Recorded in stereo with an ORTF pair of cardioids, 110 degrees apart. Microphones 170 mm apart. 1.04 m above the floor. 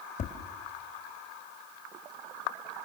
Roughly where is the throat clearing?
No throat clearing in this recording.